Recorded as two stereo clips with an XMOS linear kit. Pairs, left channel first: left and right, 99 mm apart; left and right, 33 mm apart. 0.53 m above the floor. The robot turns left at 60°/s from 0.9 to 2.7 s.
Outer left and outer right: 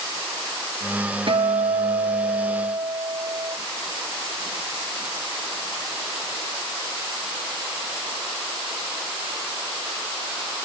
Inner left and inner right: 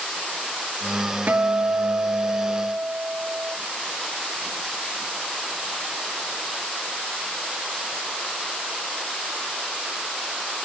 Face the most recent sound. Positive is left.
turn(degrees=-140)